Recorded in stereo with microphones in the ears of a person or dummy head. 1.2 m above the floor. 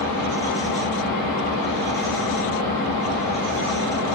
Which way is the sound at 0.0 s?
50° right (ahead or behind).